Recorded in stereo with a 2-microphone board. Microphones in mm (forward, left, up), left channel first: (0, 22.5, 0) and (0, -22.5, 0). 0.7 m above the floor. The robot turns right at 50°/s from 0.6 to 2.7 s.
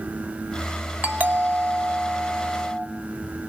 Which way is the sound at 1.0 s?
130° right.